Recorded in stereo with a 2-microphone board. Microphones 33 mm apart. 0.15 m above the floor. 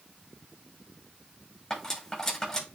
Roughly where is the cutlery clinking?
Left.